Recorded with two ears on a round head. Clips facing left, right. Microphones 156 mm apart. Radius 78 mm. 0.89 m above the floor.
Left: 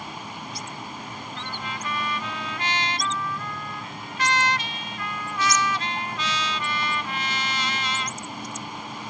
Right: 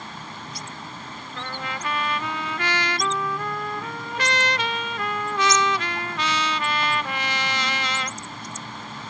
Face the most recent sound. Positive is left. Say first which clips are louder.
# right 4 dB
turn(degrees=-55)  # may be behind; listen again after turning